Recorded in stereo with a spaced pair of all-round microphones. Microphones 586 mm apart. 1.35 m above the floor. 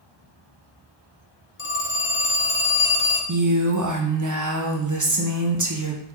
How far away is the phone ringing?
About 0.5 m.